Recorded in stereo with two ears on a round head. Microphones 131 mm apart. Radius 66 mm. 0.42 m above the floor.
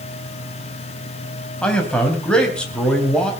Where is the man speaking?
5° left (ahead or behind), 3 m.